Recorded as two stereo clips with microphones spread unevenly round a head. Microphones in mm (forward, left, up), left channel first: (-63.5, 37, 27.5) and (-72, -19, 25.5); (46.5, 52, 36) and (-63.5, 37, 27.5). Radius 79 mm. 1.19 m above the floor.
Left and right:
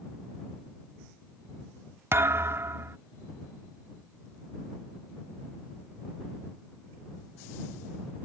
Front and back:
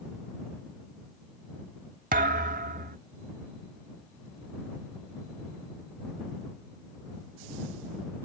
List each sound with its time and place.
2.1 s a thud: 140° right